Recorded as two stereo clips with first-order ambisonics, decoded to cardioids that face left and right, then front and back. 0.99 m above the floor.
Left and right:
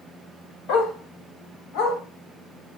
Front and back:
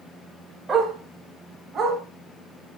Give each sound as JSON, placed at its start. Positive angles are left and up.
{"t": 0.7, "sound": "a dog barking", "azimuth_deg": 100, "distance_m": 2.0}